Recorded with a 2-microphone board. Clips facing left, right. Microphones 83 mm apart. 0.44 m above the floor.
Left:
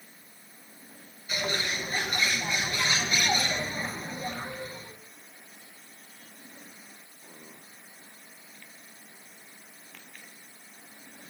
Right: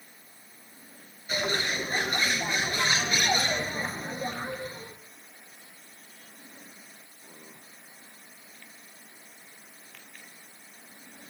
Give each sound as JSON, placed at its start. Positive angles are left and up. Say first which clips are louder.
{"t": 1.3, "sound": "a bird", "louder": "right 2 dB", "side_deg": -35, "distance_m": 0.9}